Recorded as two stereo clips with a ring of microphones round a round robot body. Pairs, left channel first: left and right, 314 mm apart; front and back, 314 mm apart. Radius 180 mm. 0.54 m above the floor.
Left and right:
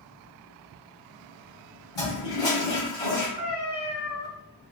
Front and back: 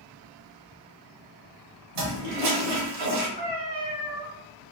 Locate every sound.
1.9 s a toilet flushing: 170° left, 1.1 m
3.4 s a cat meowing: straight behind, 1.7 m